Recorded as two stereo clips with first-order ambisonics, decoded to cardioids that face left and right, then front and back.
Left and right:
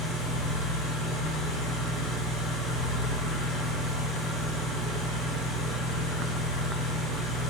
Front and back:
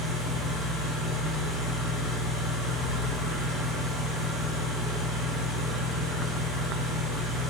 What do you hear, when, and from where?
0.0 s an engine running: 70° left, 2.5 m